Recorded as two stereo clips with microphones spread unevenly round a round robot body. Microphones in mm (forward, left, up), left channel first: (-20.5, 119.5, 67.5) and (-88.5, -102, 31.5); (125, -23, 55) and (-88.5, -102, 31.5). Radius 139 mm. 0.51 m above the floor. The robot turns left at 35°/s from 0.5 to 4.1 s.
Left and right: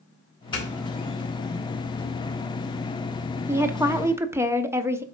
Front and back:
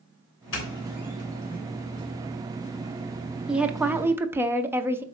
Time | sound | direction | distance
0.5 | a doorbell | straight ahead | 3.5 m
3.5 | a woman speaking | 100° right | 0.8 m